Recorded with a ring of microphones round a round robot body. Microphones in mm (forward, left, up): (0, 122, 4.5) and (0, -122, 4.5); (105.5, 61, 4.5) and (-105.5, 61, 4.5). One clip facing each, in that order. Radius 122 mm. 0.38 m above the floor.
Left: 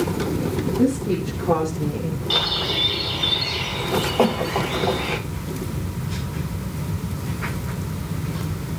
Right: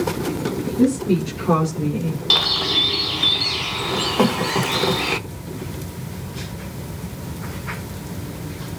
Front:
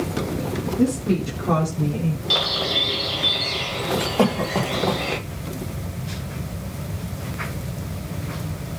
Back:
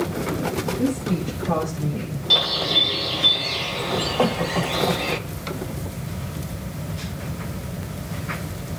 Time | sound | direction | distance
0.8 | a woman speaking | 25° right | 3.5 m
2.3 | a bird | 85° right | 1.0 m
4.2 | a cough | 40° right | 2.5 m